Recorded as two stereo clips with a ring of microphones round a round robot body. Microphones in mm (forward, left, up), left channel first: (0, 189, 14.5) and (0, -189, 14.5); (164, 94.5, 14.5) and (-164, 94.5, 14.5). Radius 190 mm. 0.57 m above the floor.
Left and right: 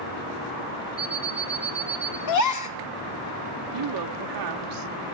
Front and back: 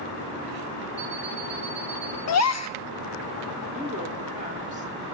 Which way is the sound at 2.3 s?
45° left.